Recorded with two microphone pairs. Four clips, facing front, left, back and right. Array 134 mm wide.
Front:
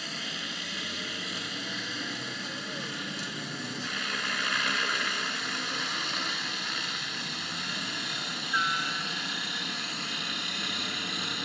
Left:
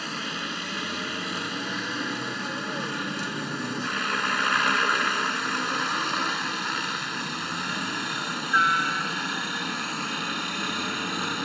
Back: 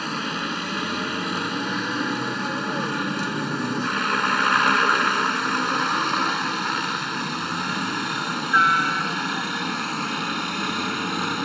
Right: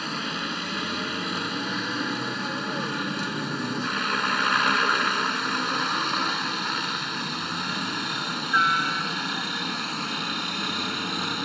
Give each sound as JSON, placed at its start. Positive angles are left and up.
{"t": 0.0, "sound": "a helicopter", "azimuth_deg": -170}